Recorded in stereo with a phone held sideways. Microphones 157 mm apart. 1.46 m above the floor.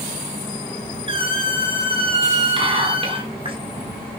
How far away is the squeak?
About 1.2 m.